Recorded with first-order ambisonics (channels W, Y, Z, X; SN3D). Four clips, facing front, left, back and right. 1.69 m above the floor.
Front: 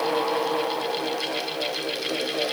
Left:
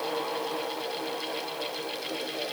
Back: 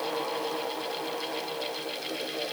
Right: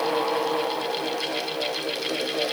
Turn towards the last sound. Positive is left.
No sound to turn to.